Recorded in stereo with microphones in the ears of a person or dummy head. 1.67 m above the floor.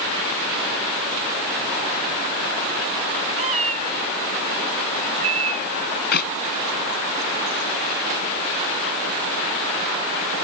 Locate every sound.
3.4 s a cat meowing: 35° right (ahead or behind)
6.1 s a clap: 55° left (ahead or behind)